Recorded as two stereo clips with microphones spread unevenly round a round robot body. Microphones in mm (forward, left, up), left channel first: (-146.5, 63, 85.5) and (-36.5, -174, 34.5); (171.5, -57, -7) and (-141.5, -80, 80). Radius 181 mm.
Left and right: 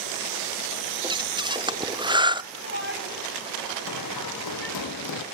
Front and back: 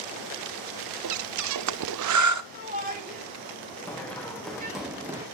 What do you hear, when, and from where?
1.0 s breathing: 140° right, 0.9 m
2.5 s a shout: 110° right, 5 m
3.9 s running footsteps: 95° left, 2.5 m; by 5.2 s 110° left, 1.8 m